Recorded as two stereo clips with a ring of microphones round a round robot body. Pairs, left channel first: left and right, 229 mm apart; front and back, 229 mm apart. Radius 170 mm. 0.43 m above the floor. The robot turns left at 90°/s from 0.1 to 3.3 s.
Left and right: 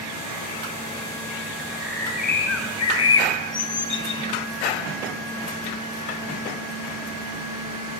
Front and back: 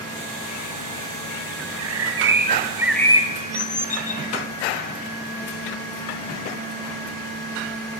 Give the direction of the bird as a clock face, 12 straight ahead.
5 o'clock.